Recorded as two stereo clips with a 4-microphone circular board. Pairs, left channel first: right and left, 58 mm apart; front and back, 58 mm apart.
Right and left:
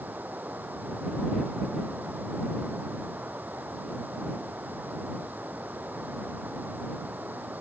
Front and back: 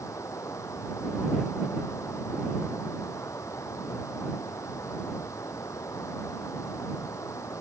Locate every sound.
0.0 s running water: 30° left